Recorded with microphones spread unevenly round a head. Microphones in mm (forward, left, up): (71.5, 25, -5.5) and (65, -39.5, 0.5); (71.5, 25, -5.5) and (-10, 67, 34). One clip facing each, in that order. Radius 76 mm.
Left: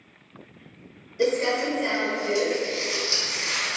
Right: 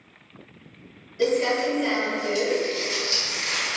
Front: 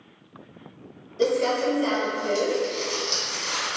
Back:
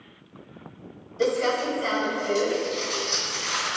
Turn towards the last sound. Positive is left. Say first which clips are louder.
# right 1 dB, front 1 dB
turn(degrees=15)